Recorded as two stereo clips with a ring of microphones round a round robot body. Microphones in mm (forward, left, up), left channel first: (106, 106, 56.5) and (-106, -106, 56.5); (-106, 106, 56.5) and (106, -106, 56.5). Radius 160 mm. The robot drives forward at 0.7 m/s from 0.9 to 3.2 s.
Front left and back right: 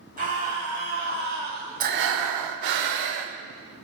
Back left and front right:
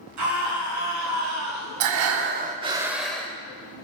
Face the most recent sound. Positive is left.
turn(degrees=-140)